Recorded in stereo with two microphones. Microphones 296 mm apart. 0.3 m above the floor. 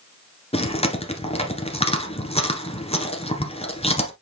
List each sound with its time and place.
0.5 s chewing: 20° left (ahead or behind), 1.6 m